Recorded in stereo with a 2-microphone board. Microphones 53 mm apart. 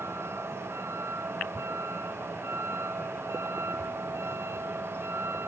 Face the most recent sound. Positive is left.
turn(degrees=-55)  # may be behind; listen again after turning